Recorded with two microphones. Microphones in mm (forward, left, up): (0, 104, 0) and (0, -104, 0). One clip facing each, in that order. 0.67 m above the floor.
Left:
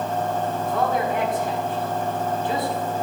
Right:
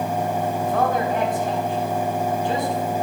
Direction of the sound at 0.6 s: 45° right (ahead or behind).